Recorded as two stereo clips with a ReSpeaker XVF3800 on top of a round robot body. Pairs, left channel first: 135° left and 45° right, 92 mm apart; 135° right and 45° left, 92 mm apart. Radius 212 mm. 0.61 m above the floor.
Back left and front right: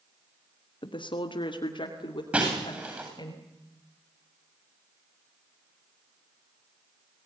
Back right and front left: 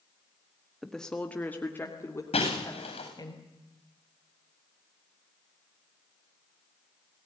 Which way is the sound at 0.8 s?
135° left.